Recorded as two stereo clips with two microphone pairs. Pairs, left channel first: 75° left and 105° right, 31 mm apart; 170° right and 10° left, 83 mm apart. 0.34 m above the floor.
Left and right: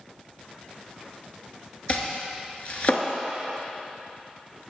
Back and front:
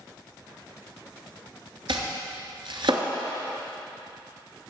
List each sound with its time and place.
1.9 s chopping: 25° left, 1.0 m